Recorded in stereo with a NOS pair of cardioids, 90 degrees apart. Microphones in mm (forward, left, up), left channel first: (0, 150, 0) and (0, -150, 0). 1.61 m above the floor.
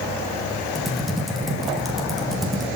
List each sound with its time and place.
0.8 s typing on a keyboard: straight ahead, 2.5 m